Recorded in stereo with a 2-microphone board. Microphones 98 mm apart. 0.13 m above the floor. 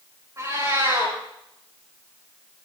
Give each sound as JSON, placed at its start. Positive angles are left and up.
{"t": 0.4, "sound": "a cat meowing", "side_deg": -30, "distance_m": 8.5}